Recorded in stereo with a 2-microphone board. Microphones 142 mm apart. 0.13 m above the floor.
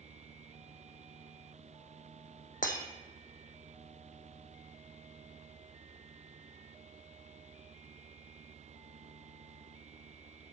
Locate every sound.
2.6 s breaking glass: 75° left (ahead or behind), 1.2 m